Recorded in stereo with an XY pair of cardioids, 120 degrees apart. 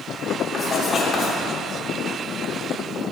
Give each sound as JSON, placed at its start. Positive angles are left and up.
{"t": 0.5, "sound": "writing", "azimuth_deg": 30, "distance_m": 3.0}